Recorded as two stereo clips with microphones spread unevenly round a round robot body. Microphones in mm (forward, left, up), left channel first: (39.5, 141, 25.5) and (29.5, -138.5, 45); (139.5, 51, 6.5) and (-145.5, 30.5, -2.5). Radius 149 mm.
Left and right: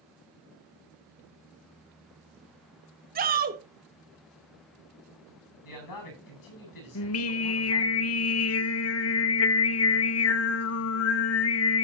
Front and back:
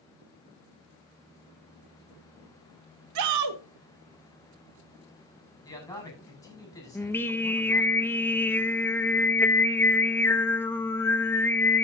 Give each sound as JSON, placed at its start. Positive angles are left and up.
{"t": 3.1, "sound": "a shout", "azimuth_deg": -155, "distance_m": 1.8}
{"t": 5.6, "sound": "a man speaking", "azimuth_deg": 85, "distance_m": 9.0}
{"t": 7.0, "sound": "singing", "azimuth_deg": 85, "distance_m": 1.1}